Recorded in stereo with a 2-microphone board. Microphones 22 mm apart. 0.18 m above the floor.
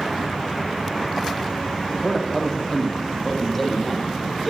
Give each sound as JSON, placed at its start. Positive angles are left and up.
{"t": 1.9, "sound": "a man speaking", "side_deg": 15, "distance_m": 9.5}